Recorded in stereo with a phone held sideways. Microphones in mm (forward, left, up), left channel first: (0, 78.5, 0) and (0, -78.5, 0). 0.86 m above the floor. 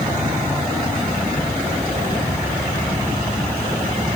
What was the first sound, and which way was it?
Only background noise.